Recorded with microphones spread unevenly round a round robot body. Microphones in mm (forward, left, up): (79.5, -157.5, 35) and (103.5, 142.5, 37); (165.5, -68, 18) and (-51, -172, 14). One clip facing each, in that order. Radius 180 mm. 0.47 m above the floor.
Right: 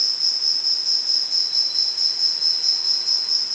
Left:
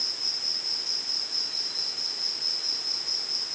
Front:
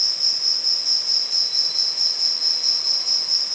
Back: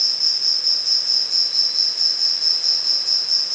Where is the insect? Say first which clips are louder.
Even, even; 75° right, 0.9 m.